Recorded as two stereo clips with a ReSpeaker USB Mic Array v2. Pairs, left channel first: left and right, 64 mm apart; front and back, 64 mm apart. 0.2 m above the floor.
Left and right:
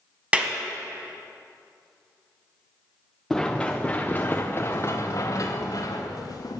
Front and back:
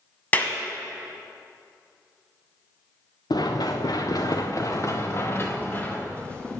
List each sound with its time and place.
0.3 s a clap: 40° right, 1.1 m
3.3 s running footsteps: straight ahead, 1.2 m; by 6.6 s 75° left, 1.6 m